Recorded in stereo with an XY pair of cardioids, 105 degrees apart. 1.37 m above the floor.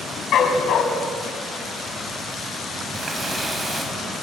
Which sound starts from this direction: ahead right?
A running tap, at 2.9 s.